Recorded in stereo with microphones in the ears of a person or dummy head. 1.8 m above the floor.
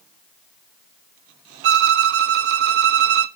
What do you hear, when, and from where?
1.6 s a violin: 60° right (ahead or behind), 0.5 m